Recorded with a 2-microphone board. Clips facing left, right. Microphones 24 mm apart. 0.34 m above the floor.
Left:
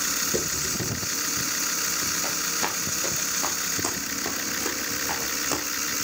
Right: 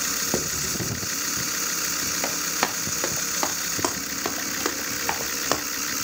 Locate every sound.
0.3 s writing: 60° right (ahead or behind), 2.5 m
2.2 s running footsteps: 75° right (ahead or behind), 5.5 m; by 5.6 s 45° right (ahead or behind), 4 m